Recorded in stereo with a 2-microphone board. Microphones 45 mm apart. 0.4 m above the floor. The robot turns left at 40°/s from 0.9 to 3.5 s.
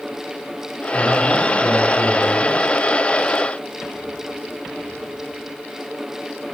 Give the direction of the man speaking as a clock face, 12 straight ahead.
1 o'clock.